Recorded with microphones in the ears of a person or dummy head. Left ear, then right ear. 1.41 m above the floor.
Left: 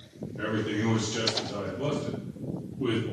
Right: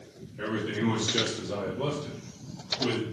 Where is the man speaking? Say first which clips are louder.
Left 1 dB; 5° left (ahead or behind), 0.7 m; by 3.0 s 70° right (ahead or behind), 1.3 m.